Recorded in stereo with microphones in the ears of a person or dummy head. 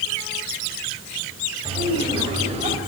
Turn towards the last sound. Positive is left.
turn(degrees=-35)  # may be behind; listen again after turning